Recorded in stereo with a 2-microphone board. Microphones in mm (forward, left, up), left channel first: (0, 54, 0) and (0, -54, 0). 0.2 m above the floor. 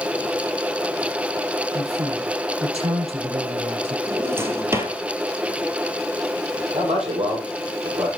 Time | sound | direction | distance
1.7 | a man speaking | 80° right | 6 m
4.1 | a drawer | 20° right (ahead or behind) | 1.6 m
6.7 | a man speaking | 80° right | 7.5 m